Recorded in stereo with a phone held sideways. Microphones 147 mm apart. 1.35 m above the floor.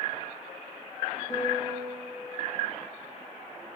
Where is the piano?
30° left (ahead or behind), 3 m.